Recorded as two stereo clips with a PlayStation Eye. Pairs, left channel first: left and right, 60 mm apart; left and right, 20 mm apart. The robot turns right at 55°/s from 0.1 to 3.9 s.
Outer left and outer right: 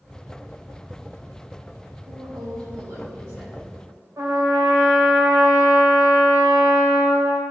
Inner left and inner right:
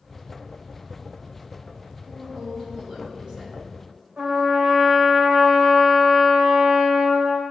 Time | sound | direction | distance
2.1 | a woman speaking | 110° right | 2.5 m
4.2 | a trumpet | 65° right (ahead or behind) | 2.5 m